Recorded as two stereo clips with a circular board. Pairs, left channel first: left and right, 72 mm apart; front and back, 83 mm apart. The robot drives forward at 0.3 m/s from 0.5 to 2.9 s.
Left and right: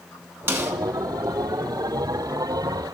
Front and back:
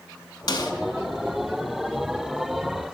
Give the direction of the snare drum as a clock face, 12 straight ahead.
1 o'clock.